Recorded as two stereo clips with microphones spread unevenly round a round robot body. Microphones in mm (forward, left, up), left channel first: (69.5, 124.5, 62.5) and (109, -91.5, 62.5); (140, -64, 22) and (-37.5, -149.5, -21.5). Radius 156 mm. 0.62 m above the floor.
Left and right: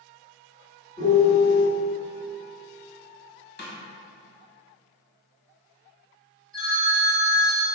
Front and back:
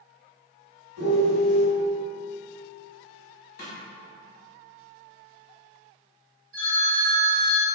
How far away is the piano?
About 2.0 m.